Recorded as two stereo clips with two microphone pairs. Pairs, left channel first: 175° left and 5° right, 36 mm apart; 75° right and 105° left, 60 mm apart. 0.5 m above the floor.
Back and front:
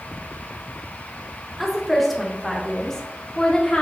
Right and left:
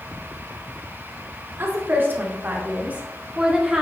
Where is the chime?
No chime in this recording.